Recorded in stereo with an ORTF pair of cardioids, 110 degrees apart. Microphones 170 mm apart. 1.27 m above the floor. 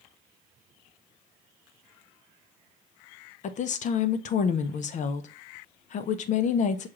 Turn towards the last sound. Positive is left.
turn(degrees=50)